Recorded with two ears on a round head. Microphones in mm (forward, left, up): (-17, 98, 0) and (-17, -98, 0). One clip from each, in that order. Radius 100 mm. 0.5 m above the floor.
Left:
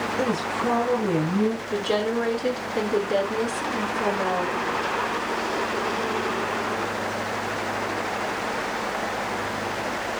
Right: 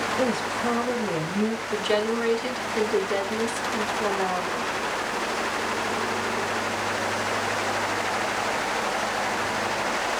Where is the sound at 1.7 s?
60° right (ahead or behind), 3.5 m.